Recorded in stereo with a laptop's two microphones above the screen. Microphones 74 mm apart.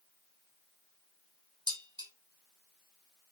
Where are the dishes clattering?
85° right, 2.5 m.